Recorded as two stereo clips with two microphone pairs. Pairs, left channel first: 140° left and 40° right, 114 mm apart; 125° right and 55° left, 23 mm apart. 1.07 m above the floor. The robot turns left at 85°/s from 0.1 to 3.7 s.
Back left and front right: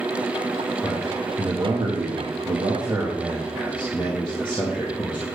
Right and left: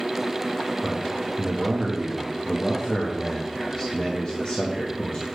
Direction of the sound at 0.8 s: 75° left.